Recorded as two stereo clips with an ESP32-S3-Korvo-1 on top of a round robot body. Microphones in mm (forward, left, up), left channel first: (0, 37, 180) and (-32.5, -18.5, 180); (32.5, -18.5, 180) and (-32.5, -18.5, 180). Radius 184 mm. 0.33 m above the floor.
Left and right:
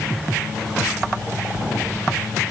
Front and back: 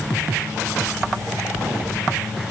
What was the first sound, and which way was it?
Only background noise.